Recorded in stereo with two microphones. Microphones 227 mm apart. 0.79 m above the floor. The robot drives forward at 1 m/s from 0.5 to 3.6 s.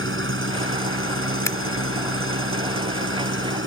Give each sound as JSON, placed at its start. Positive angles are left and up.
{"t": 0.0, "sound": "an engine running", "side_deg": -75}
{"t": 1.4, "sound": "scissors", "side_deg": 15}